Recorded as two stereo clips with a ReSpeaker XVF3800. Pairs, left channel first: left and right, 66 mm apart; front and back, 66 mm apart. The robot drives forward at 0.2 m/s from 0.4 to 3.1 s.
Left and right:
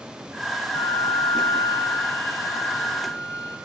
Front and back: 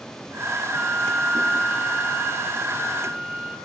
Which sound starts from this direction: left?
A flute, at 0.7 s.